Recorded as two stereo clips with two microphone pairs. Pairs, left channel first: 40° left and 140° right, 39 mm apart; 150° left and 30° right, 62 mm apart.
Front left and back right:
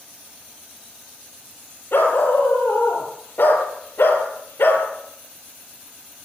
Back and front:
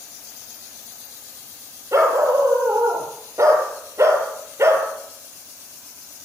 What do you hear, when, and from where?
1.9 s a dog barking: 15° left, 9 m; by 4.9 s 20° left, 7 m